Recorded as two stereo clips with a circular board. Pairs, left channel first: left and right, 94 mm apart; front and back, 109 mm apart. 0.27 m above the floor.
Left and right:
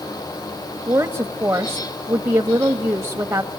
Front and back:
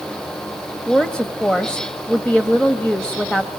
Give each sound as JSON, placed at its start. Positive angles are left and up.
{"t": 0.9, "sound": "a woman speaking", "azimuth_deg": -70, "distance_m": 1.0}